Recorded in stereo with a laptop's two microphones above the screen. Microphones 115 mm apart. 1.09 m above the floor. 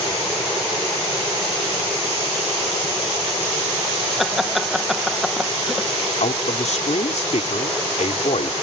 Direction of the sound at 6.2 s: 80° left.